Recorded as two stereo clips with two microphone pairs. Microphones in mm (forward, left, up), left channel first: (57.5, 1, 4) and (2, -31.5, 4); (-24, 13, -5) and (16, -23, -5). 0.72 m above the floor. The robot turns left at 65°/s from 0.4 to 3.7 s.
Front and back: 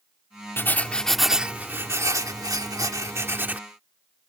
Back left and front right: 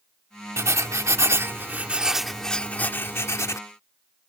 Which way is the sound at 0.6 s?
20° right.